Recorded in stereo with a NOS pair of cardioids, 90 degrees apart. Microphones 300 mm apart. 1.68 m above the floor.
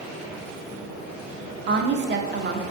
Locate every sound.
1.7 s a woman speaking: 35° right, 0.6 m